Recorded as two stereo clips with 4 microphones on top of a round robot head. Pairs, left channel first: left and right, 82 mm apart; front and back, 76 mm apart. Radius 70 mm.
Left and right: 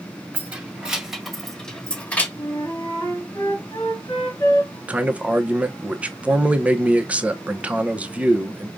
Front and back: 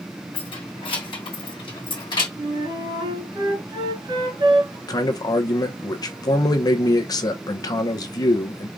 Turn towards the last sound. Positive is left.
turn(degrees=-20)